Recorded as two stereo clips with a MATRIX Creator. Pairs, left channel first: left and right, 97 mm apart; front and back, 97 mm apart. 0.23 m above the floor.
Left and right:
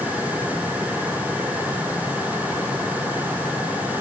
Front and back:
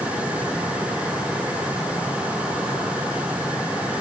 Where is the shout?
No shout in this recording.